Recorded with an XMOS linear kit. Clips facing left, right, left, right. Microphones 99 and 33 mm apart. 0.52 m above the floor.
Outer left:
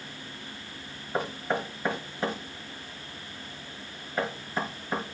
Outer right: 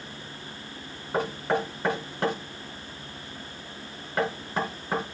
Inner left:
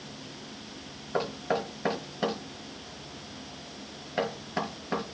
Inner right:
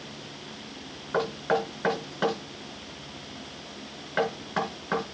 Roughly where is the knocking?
Right.